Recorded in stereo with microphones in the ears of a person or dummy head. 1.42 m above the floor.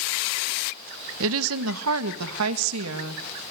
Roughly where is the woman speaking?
Right.